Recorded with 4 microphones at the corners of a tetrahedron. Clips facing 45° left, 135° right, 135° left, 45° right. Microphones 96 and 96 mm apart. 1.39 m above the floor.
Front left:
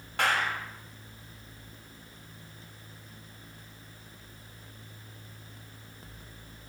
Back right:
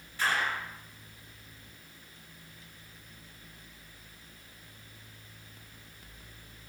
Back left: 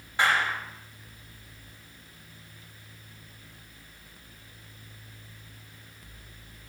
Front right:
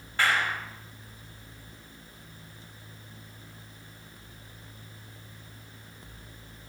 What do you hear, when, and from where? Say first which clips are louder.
0.2 s a clap: front left 2 dB, back left 1 dB; 60° left, 6 m